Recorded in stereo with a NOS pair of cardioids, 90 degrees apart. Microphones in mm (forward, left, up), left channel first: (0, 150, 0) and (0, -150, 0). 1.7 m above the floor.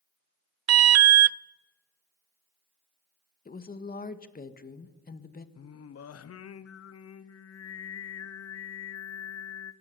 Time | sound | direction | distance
0.7 | an alarm | 60° right | 0.7 m
3.5 | a woman speaking | 30° left | 1.7 m
5.5 | singing | 55° left | 1.1 m